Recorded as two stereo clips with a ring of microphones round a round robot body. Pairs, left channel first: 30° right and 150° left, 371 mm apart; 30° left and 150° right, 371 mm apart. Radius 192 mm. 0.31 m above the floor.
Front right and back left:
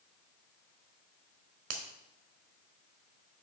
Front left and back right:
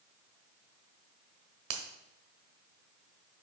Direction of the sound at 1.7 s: 170° right.